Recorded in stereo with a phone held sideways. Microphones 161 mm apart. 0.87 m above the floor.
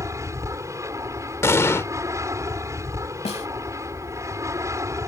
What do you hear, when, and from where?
0.0 s an aircraft: 20° right (ahead or behind)
1.4 s an explosion: 15° left (ahead or behind)
3.2 s a snare drum: 40° left (ahead or behind)